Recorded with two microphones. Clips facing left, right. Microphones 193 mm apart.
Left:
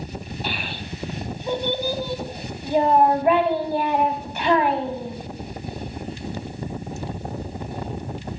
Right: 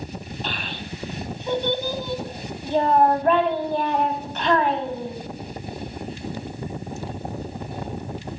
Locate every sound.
0.4 s a child speaking: 10° left (ahead or behind), 1.8 m